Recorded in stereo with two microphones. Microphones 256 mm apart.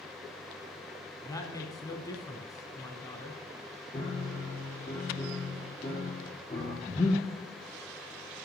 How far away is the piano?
About 4.5 m.